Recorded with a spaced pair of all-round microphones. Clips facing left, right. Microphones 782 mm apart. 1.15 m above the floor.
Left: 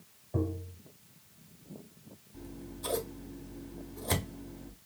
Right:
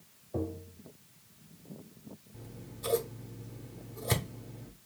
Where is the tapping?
30° left (ahead or behind), 0.9 m.